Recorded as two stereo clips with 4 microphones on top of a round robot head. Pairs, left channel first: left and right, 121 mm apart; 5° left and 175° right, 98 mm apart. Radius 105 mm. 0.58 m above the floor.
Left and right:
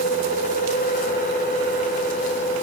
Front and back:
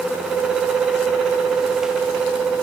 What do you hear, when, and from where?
Only background noise.